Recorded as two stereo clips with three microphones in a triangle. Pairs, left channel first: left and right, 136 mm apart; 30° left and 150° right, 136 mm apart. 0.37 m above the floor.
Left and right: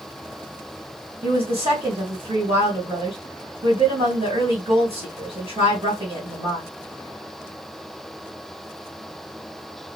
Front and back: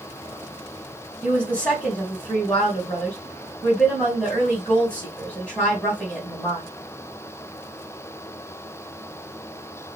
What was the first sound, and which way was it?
A woman speaking, 50° right.